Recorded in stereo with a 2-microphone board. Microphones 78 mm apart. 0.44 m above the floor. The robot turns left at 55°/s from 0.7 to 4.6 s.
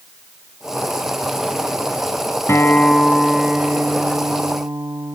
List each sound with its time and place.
2.5 s a guitar: 40° left, 0.7 m; by 5.2 s 75° right, 0.7 m